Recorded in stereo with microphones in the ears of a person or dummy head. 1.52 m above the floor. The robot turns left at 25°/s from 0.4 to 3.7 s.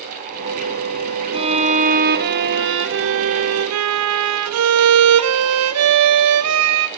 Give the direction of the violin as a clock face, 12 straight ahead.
1 o'clock.